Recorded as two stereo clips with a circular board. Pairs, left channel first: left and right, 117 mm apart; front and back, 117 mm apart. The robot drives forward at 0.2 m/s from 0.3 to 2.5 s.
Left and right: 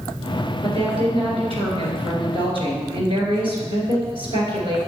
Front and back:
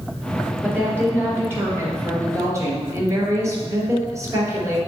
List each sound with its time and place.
0.6 s a woman speaking: 110° right, 2 m; by 4.8 s 120° right, 2 m